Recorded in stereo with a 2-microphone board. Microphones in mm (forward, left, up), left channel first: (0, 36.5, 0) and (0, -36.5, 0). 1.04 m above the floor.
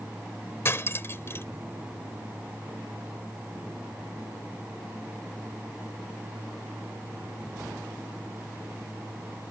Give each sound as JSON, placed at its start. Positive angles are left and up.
{"t": 0.7, "sound": "cutlery clinking", "side_deg": 35}